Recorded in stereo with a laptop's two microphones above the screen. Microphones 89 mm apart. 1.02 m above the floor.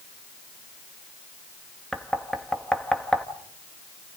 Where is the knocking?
5° left (ahead or behind), 1.2 m.